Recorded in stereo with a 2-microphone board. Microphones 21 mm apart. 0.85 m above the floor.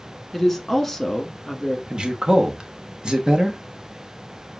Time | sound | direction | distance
0.3 | a woman speaking | 10° left (ahead or behind) | 1.2 m
1.9 | a man speaking | 35° right (ahead or behind) | 0.9 m